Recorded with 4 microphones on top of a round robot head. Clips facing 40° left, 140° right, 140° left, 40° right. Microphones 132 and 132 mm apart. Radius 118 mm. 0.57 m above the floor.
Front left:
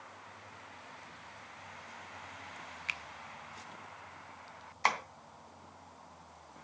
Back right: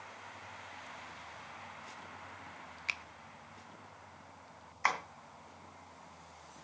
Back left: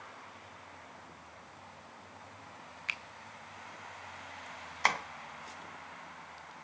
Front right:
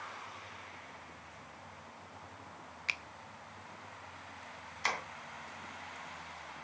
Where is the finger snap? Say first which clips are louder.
Back right 1 dB, front right 1 dB; 90° right, 1.0 m.